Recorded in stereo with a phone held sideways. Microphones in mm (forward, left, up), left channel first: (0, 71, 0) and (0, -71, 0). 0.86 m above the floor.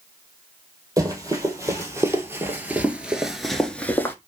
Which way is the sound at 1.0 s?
25° right (ahead or behind).